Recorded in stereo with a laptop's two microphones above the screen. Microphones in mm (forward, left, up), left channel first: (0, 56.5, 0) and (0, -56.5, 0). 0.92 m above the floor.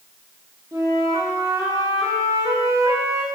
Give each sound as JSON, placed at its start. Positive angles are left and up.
{"t": 0.7, "sound": "a flute", "side_deg": -30, "distance_m": 0.9}